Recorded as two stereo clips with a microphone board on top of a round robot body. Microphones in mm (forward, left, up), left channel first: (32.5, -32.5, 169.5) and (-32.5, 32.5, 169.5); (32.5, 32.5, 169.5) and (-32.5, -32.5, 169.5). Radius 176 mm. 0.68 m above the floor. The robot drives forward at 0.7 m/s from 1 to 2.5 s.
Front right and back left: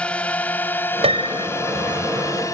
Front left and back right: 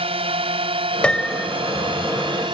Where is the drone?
120° right; by 2.5 s 100° right.